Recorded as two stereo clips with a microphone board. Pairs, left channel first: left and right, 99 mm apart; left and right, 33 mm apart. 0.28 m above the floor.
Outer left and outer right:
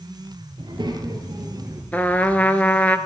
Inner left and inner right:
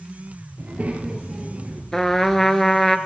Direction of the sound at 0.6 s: 50° right (ahead or behind).